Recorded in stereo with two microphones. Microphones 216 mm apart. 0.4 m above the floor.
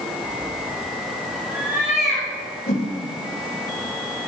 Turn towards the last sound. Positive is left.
turn(degrees=35)  # may be behind; listen again after turning